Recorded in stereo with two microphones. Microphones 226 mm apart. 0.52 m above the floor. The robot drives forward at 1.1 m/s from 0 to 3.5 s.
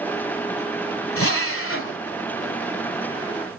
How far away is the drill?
About 1.3 m.